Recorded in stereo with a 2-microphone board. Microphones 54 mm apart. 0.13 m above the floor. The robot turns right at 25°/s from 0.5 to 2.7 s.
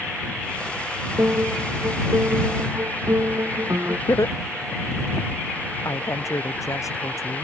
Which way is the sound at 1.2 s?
135° right.